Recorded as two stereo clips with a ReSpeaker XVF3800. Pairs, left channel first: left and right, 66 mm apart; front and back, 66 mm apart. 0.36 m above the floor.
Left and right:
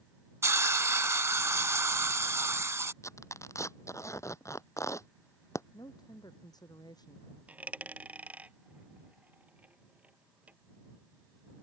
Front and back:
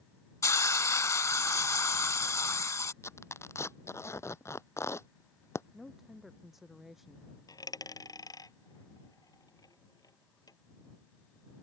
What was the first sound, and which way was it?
A hiss, 45° right.